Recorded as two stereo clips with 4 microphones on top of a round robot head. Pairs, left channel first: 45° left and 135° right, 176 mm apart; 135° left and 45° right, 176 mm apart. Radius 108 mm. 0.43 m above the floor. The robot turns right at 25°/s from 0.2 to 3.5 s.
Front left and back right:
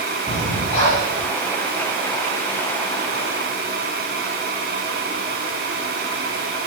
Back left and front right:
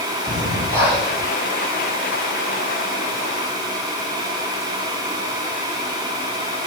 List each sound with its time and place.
0.3 s breathing: 20° left, 7 m; by 1.2 s 45° left, 7 m